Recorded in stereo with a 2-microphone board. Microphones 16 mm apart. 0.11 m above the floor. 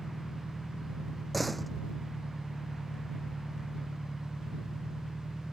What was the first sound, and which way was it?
An engine running, 45° left (ahead or behind).